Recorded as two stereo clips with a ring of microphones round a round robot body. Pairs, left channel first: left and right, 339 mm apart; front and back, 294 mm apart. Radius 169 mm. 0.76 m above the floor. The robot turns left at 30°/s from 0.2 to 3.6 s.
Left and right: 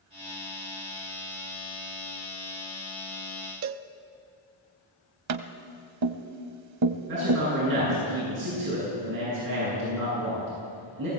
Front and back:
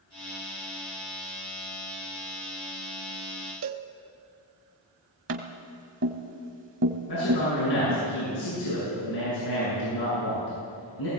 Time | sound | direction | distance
3.6 | a cowbell | 135° right | 0.9 m
5.3 | tapping | 125° right | 1.0 m
7.1 | a man speaking | 35° right | 8 m